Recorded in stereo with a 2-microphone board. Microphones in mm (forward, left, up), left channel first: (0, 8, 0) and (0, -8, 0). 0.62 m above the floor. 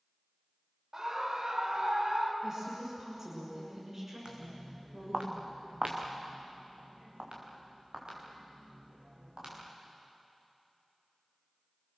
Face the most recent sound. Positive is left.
turn(degrees=-55)  # may be behind; listen again after turning